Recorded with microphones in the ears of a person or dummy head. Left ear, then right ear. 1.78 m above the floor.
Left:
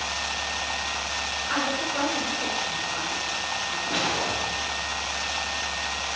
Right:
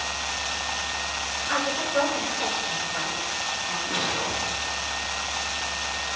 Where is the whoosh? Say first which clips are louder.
Left 2 dB; 10° left (ahead or behind), 2.5 m.